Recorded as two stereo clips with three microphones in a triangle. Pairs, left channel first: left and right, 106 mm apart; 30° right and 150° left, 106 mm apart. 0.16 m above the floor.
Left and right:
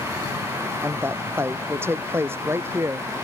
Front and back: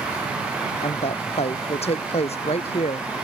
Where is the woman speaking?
20° right.